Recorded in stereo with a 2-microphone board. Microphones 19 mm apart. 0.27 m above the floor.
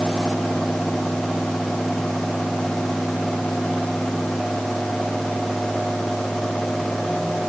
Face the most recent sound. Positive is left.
No sound to turn to.